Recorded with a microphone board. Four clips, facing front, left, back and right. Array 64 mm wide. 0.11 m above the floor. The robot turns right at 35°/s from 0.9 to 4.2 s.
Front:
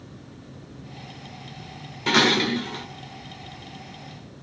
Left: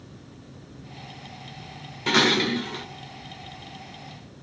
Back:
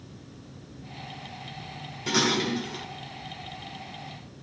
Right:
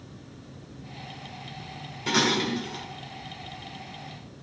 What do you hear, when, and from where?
2.1 s dishes clattering: 35° left, 1.2 m; by 2.9 s 65° left, 1.2 m